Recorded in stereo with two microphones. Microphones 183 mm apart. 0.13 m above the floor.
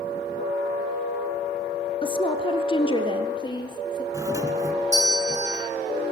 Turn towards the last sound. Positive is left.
turn(degrees=-20)  # may be behind; listen again after turning